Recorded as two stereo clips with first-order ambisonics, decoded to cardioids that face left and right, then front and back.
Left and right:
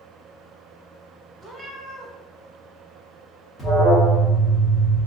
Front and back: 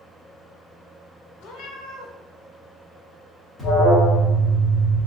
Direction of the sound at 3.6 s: 70° left.